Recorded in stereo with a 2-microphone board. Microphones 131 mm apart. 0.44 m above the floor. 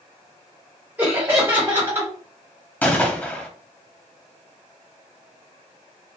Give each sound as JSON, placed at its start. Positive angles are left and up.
{"t": 1.0, "sound": "laughter", "side_deg": -15, "distance_m": 1.4}
{"t": 2.8, "sound": "a gunshot", "side_deg": 15, "distance_m": 0.5}